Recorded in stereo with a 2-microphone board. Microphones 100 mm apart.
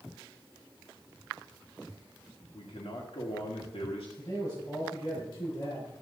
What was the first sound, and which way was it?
A man speaking, 85° left.